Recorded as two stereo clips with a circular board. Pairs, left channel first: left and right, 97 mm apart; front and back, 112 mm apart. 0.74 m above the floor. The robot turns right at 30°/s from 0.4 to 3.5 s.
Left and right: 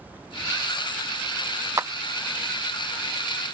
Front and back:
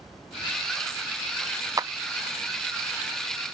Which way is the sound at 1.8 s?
135° right.